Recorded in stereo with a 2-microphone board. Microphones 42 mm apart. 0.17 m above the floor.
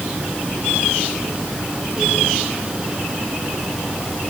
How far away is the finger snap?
I don't hear a finger snap.